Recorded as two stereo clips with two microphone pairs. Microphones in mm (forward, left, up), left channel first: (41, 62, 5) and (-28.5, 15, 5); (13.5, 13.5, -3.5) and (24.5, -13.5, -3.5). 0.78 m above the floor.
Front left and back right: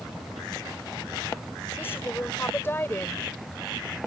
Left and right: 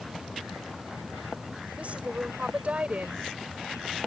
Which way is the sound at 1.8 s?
25° right.